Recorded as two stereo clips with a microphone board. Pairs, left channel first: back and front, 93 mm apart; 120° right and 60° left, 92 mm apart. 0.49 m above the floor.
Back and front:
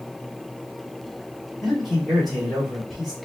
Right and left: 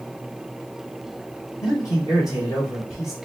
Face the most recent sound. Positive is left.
turn(degrees=-90)